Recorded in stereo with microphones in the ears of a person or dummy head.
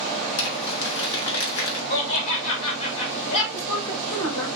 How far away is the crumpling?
About 1.7 m.